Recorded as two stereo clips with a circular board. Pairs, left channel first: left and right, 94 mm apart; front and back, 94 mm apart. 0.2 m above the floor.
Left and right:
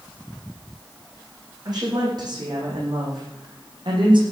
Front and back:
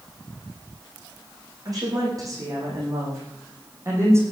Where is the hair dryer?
No hair dryer in this recording.